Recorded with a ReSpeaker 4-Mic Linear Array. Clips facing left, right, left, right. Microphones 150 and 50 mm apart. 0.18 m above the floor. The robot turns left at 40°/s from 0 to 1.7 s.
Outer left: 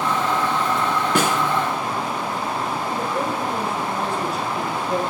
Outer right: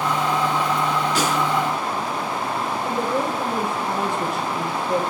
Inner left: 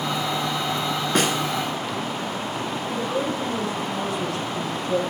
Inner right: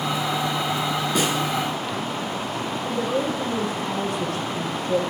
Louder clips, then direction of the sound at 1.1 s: Outer left 2 dB, inner left 2 dB; 50° left (ahead or behind).